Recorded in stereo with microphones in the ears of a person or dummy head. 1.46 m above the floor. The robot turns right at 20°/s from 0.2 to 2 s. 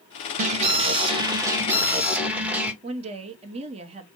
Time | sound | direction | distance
0.4 | an alarm | 40° right | 1.2 m
2.8 | a woman speaking | 30° right (ahead or behind) | 0.9 m